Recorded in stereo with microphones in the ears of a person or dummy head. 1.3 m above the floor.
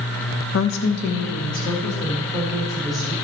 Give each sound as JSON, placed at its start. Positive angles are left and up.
{"t": 0.5, "sound": "a woman speaking", "side_deg": 70, "distance_m": 0.7}